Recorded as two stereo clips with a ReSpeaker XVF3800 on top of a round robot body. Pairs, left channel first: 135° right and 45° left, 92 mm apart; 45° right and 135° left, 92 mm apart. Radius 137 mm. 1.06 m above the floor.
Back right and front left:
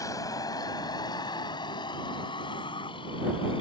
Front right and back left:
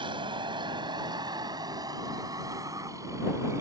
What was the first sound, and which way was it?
A vehicle, 170° left.